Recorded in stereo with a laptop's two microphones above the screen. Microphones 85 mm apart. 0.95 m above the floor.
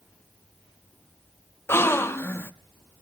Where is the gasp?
30° left (ahead or behind), 0.6 m.